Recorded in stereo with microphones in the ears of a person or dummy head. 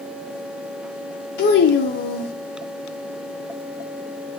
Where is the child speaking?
65° left (ahead or behind), 0.8 m.